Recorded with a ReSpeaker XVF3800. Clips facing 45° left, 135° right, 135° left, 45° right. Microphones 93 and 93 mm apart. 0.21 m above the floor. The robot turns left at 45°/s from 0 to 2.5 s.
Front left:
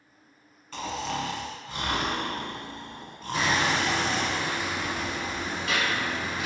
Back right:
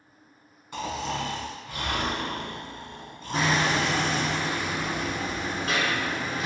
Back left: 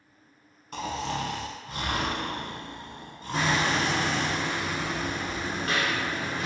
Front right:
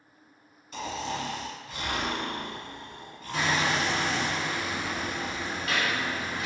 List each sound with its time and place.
0.7 s snoring: 155° left, 0.6 m; by 4.3 s 70° left, 0.6 m
3.3 s hammering: straight behind, 0.7 m